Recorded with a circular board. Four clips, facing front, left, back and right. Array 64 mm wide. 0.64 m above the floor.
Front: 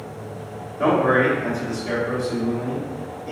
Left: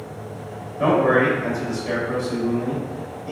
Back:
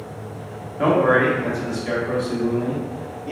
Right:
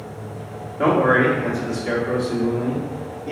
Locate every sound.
0.8 s a man speaking: 135° right, 1.5 m